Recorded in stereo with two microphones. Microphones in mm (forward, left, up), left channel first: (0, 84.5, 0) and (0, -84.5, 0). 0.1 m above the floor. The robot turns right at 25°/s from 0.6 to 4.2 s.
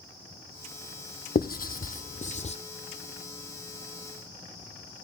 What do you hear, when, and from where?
1.4 s writing: 70° left (ahead or behind), 1.1 m; by 2.6 s 45° left (ahead or behind), 1.1 m